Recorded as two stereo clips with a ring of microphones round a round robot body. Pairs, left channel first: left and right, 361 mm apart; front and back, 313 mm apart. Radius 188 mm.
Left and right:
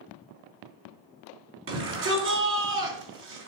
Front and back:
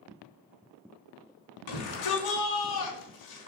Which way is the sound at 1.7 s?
35° right.